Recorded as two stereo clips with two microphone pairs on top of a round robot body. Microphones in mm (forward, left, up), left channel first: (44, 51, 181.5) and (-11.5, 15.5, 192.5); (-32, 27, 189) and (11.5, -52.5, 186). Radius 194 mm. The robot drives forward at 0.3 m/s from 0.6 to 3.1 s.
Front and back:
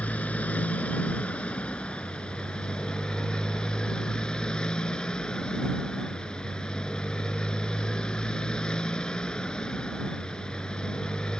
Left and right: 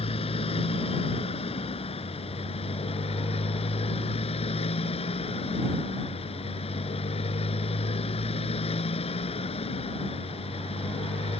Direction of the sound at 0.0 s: 105° left.